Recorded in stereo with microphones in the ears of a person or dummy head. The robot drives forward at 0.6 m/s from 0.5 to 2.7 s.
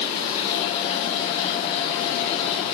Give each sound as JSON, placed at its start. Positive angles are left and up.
{"t": 0.0, "sound": "running water", "side_deg": 45, "distance_m": 8.0}